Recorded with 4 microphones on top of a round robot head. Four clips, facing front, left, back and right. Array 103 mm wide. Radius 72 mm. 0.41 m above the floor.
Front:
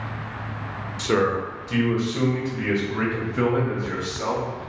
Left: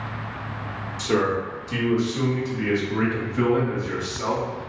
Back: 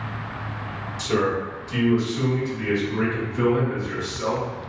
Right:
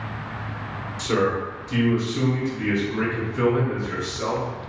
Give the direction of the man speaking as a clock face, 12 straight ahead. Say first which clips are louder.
Even, front 1 dB; 12 o'clock.